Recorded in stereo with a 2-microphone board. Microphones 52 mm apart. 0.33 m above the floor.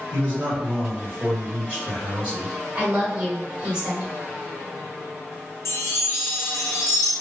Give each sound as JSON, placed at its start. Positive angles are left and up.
{"t": 0.1, "sound": "a man speaking", "side_deg": -15, "distance_m": 1.3}
{"t": 2.8, "sound": "a woman speaking", "side_deg": -15, "distance_m": 1.4}
{"t": 5.7, "sound": "a chime", "side_deg": 80, "distance_m": 0.6}